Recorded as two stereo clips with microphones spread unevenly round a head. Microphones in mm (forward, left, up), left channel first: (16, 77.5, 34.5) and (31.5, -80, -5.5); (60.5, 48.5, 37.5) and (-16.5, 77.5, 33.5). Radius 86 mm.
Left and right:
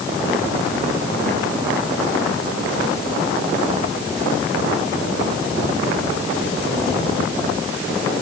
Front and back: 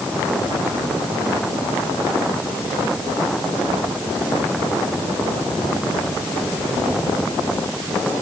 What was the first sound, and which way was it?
Only background noise.